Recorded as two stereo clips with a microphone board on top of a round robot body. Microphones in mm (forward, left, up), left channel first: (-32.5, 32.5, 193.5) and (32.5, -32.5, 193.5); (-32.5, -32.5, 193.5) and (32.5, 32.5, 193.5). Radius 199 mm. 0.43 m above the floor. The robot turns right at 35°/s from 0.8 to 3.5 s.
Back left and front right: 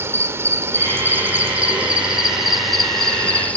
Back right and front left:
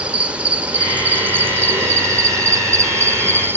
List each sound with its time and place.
0.0 s an insect: 20° right, 1.3 m; by 3.6 s 75° left, 1.3 m